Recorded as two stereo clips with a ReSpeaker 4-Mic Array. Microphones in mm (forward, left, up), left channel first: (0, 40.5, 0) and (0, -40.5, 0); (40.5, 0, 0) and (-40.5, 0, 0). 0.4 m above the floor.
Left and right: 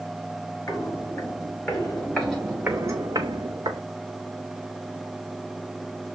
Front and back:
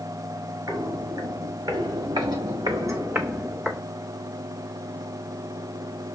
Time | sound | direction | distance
0.7 | footsteps | 145° left | 3 m